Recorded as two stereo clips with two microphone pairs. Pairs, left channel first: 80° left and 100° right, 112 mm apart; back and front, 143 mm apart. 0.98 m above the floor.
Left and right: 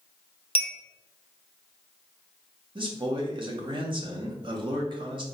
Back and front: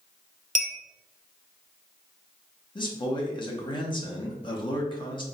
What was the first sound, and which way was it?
A clink, 40° left.